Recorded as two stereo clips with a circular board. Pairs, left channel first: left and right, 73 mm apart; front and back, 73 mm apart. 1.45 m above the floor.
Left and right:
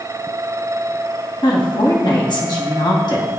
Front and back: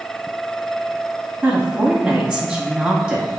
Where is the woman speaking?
100° left, 2 m.